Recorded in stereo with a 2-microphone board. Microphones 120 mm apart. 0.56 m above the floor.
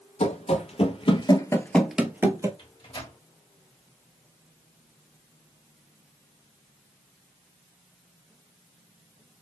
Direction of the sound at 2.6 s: 40° left (ahead or behind).